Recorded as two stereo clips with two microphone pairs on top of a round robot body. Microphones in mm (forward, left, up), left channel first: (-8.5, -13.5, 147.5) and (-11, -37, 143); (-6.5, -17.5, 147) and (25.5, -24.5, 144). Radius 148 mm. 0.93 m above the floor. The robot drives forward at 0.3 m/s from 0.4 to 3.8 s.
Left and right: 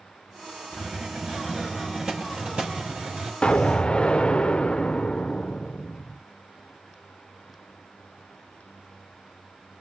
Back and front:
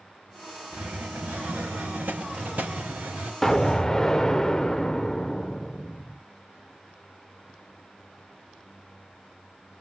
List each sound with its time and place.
0.7 s a hiss: 40° right, 4.5 m; by 3.3 s 45° right, 4 m
3.4 s an explosion: 85° left, 0.7 m; by 6.2 s 105° left, 0.7 m